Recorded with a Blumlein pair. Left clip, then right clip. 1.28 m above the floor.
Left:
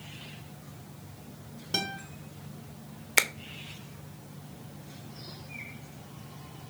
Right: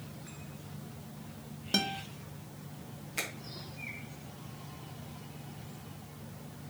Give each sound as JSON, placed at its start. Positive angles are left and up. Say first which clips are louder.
{"t": 1.7, "sound": "a guitar", "louder": "even", "azimuth_deg": -10, "distance_m": 0.9}
{"t": 3.2, "sound": "a finger snap", "louder": "left 12 dB", "azimuth_deg": 35, "distance_m": 0.5}